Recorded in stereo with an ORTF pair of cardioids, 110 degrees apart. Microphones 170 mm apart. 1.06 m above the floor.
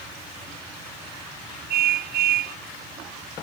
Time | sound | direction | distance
1.7 | a car horn | 70° right | ?